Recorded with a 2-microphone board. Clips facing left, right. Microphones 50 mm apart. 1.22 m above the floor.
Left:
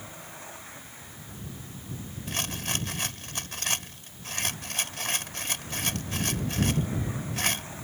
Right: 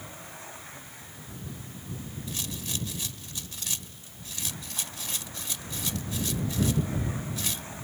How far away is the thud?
No thud in this recording.